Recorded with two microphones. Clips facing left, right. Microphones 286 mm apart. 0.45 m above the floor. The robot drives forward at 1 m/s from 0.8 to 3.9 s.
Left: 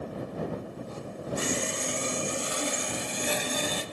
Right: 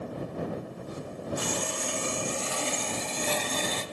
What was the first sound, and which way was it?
Sawing, 30° left (ahead or behind).